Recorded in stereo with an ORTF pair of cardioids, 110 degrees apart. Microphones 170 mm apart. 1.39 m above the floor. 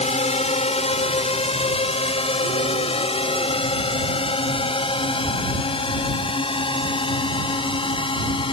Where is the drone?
45° left; by 8.5 s 30° left.